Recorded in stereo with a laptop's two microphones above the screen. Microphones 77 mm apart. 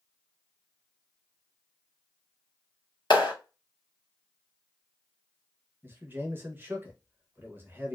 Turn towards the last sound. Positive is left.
turn(degrees=-25)  # may be behind; listen again after turning